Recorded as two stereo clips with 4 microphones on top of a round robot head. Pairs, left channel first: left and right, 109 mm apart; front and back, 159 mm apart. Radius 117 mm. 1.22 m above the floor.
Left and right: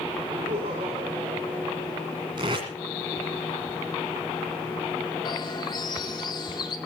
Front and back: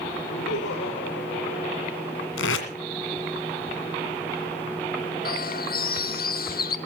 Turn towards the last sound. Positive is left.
turn(degrees=30)